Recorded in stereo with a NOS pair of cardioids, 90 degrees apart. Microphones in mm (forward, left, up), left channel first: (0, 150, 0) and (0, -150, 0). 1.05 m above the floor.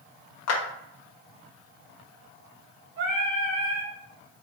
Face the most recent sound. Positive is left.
turn(degrees=-50)